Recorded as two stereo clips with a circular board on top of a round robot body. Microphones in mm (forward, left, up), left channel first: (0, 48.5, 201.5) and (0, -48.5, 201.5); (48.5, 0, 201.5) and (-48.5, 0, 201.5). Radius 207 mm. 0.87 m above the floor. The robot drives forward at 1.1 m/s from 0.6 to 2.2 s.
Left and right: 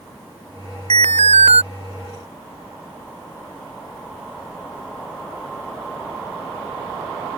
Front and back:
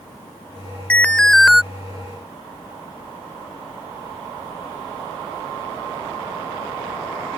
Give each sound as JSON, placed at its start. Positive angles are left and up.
{"t": 0.9, "sound": "an alarm", "azimuth_deg": -75}